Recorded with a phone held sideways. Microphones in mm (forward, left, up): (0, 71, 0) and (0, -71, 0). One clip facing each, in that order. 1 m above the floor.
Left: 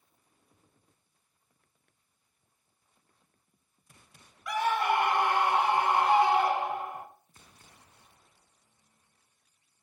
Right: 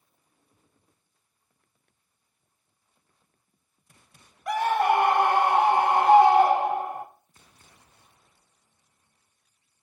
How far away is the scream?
About 1.1 m.